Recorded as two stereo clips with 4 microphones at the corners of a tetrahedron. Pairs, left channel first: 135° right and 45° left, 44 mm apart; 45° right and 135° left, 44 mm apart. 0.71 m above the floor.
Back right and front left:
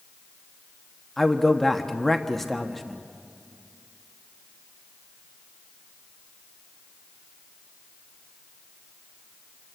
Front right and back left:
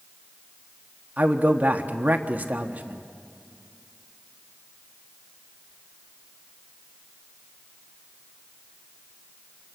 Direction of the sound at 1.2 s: 145° left.